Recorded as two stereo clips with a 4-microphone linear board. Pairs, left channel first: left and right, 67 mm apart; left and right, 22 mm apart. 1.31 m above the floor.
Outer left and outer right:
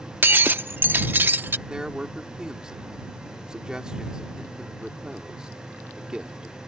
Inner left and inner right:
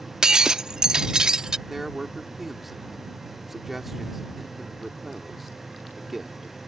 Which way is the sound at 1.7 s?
10° right (ahead or behind).